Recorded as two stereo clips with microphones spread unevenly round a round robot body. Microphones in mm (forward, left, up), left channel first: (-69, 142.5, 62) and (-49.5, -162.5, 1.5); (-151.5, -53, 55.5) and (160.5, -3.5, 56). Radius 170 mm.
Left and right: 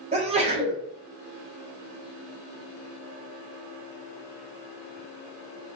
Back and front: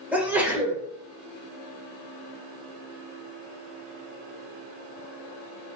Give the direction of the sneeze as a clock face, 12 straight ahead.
2 o'clock.